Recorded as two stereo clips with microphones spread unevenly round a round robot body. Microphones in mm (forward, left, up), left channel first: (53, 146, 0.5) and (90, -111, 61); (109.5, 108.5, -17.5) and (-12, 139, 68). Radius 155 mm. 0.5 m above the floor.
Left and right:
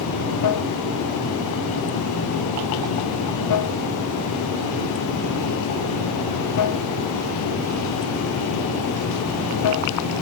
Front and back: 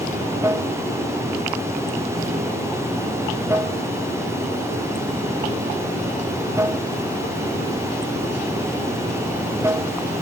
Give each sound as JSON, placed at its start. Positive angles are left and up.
{"t": 0.0, "sound": "running water", "azimuth_deg": 100}